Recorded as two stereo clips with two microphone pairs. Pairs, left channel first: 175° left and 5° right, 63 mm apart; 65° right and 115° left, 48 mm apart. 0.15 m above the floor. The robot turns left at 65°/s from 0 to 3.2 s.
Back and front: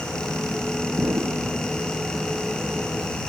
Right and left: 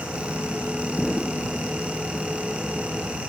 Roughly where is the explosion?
Ahead left.